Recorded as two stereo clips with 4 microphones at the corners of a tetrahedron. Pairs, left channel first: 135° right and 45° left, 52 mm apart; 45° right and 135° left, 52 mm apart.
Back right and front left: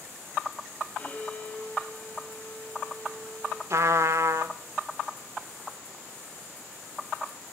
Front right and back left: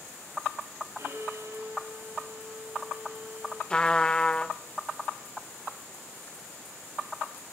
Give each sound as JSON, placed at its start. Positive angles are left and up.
{"t": 1.0, "sound": "a violin", "azimuth_deg": 165, "distance_m": 2.5}
{"t": 3.7, "sound": "a trumpet", "azimuth_deg": 25, "distance_m": 0.7}